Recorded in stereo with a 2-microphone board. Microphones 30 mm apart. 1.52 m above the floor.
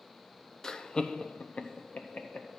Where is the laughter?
15° left (ahead or behind), 0.8 m; by 2.5 s 45° left (ahead or behind), 1.9 m.